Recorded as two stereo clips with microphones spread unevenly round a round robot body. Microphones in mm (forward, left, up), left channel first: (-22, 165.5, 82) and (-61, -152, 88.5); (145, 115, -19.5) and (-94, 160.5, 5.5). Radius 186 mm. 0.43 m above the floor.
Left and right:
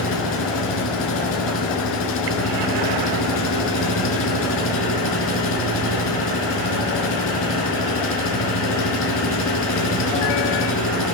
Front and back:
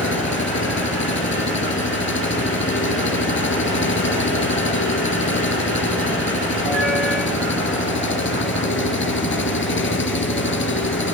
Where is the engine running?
30° left, 4 m.